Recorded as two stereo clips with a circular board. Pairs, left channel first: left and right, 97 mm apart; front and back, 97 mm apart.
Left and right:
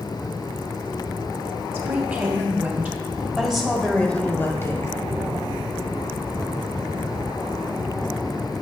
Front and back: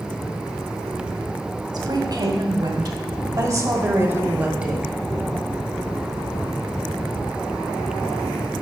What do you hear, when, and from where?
1.7 s a woman speaking: 145° right, 2 m; by 4.9 s 95° left, 1.3 m